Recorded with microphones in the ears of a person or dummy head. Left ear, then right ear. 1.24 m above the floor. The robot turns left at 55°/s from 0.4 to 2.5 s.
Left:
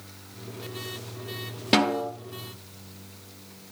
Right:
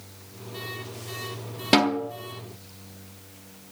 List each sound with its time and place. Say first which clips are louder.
1.7 s a snare drum: right 1 dB; 5° right (ahead or behind), 1.1 m; by 2.1 s 10° left (ahead or behind), 1.1 m